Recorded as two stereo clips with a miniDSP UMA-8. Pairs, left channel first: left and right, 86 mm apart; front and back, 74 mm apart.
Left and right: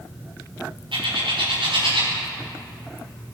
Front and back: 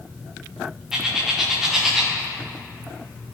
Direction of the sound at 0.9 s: 95° right.